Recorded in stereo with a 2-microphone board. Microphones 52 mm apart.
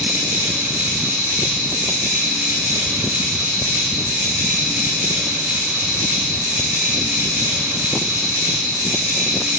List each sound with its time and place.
0.0 s an insect: 60° right (ahead or behind), 4.5 m